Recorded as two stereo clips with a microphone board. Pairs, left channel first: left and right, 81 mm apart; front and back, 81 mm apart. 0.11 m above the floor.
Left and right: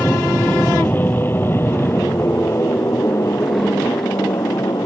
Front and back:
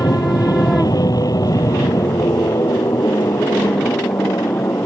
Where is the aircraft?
20° left; by 4.9 s 55° left.